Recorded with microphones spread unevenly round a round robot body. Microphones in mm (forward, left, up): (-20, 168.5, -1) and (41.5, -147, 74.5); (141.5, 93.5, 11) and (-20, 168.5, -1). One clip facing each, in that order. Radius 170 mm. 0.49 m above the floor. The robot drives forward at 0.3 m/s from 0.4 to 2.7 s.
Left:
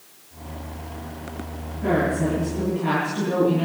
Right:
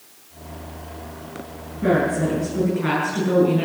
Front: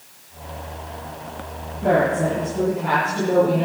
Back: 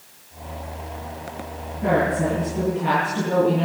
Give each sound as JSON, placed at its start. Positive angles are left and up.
{"t": 1.8, "sound": "a woman speaking", "azimuth_deg": -130, "distance_m": 9.0}